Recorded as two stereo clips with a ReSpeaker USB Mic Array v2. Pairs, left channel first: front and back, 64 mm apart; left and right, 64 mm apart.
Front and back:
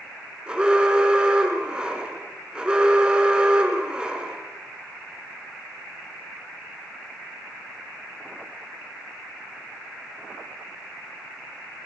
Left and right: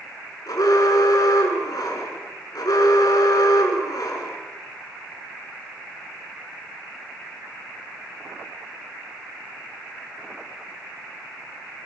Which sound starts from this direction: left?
An alarm, at 0.5 s.